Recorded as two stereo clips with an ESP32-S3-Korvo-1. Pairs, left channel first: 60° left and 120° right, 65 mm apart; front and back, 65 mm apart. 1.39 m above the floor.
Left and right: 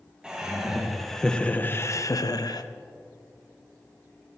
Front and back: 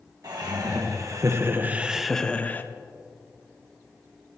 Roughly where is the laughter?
Behind.